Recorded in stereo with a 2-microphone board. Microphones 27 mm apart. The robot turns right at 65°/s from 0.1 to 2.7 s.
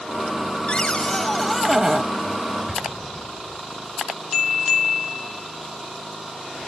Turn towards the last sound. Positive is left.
turn(degrees=-5)  # may be behind; listen again after turning